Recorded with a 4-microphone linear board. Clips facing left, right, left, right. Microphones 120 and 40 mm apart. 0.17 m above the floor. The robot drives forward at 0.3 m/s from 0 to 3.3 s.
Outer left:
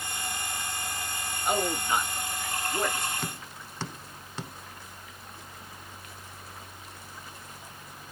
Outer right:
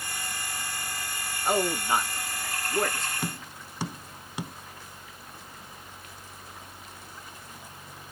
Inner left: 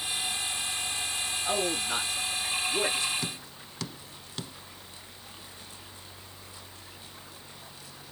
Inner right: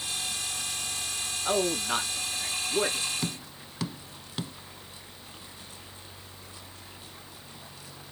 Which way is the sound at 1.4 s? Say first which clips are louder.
Outer right 2 dB, inner right 3 dB; 35° right (ahead or behind).